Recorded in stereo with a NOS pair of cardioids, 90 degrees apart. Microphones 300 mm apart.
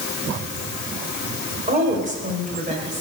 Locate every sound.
1.7 s a woman speaking: 25° right, 4 m